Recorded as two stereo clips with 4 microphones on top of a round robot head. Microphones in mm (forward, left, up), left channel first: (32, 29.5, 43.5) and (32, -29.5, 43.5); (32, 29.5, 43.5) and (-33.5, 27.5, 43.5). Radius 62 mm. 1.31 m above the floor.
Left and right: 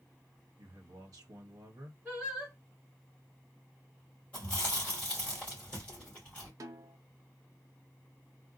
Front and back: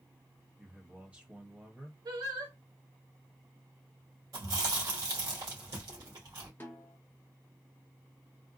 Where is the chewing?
165° left, 1.8 m.